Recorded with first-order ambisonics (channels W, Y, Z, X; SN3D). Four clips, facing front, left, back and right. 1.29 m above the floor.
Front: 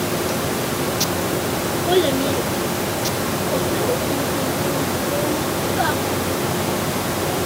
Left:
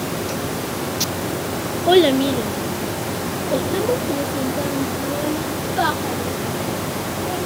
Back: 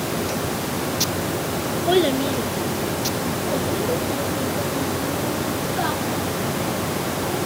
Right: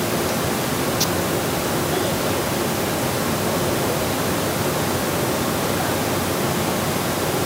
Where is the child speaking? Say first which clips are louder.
Left 7 dB, front 1 dB; 95° left, 0.9 m; by 7.4 s 85° left, 4 m.